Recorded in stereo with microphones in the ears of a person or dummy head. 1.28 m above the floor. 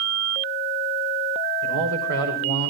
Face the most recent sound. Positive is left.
turn(degrees=-85)